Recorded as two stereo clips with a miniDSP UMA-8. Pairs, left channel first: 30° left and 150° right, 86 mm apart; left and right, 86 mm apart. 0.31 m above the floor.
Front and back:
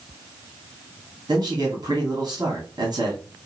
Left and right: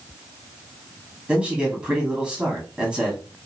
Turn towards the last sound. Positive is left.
turn(degrees=-165)